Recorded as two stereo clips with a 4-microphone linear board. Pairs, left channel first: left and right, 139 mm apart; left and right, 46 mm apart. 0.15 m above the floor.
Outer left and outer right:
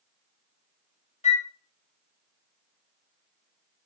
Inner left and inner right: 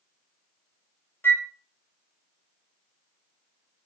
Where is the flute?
55° left (ahead or behind), 0.6 m.